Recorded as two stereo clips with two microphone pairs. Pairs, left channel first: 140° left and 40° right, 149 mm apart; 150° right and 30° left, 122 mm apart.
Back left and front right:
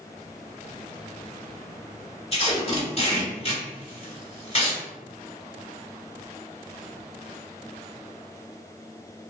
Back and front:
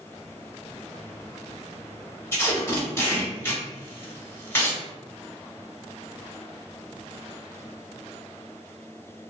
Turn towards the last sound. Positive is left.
turn(degrees=150)